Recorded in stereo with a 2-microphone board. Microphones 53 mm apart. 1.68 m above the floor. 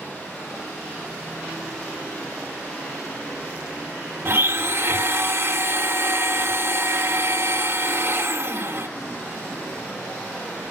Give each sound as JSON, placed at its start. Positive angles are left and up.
{"t": 4.2, "sound": "a blender", "side_deg": -50, "distance_m": 1.5}